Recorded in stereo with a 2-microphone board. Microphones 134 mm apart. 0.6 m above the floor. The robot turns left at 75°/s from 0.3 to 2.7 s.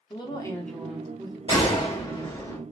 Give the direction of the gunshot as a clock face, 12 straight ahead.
8 o'clock.